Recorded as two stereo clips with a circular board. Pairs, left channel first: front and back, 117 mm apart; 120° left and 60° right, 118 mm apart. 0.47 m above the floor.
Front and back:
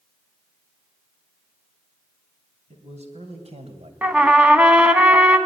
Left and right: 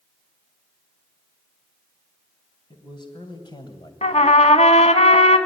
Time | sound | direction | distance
2.7 | a man speaking | 165° left | 4 m
4.0 | a trumpet | 100° left | 1.3 m